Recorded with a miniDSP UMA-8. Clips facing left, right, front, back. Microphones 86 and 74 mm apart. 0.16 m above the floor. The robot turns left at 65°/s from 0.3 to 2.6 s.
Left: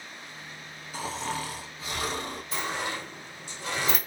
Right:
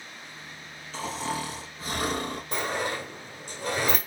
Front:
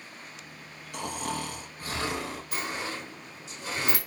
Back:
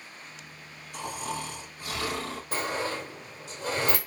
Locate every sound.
0.9 s snoring: 15° left, 1.2 m; by 2.4 s 85° right, 1.2 m
2.5 s a sliding door: 125° right, 1.6 m; by 4.0 s 135° right, 1.6 m